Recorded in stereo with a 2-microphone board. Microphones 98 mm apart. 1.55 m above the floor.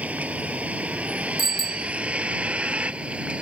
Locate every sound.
0.0 s a vehicle: 15° right (ahead or behind); by 3.4 s 10° right (ahead or behind)
1.4 s a bicycle bell: 60° right (ahead or behind)